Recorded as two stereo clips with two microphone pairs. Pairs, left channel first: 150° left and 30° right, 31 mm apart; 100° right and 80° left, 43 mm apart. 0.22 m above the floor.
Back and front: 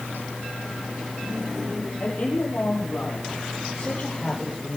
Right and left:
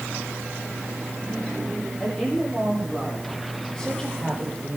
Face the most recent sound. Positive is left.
turn(degrees=-170)